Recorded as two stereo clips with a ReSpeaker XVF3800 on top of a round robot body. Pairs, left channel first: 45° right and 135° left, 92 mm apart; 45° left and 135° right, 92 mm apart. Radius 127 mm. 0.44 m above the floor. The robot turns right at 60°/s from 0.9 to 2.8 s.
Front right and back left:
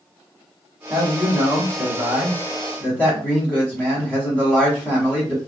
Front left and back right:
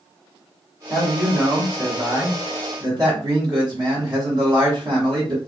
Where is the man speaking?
125° left, 1.6 m; by 5.4 s 120° right, 1.6 m.